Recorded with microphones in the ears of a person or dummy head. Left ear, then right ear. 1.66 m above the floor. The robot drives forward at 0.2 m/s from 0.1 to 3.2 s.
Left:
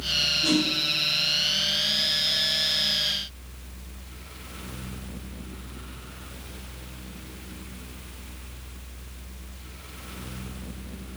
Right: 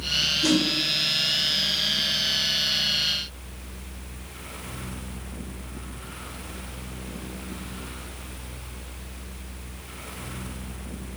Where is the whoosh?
60° right (ahead or behind), 0.6 m.